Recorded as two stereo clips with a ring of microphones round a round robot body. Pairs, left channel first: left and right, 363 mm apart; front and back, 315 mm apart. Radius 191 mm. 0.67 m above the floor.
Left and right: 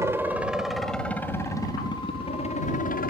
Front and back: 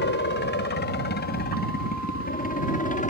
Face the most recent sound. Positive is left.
turn(degrees=45)